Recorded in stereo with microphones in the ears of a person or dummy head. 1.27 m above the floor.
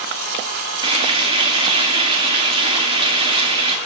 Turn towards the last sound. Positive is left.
turn(degrees=-35)  # may be behind; listen again after turning